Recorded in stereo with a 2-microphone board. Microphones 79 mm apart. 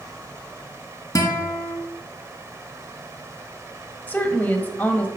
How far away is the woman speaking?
About 1.4 m.